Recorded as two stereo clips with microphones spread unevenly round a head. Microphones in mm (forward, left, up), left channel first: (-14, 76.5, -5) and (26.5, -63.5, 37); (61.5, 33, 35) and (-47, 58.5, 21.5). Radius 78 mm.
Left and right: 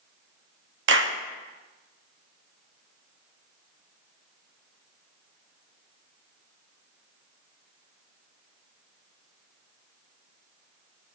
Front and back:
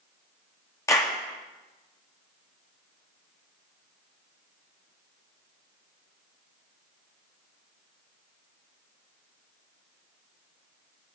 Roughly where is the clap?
Right.